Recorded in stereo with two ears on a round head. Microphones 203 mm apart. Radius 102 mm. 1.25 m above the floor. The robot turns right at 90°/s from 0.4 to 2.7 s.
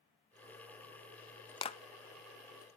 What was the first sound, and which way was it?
A clap, 20° left (ahead or behind).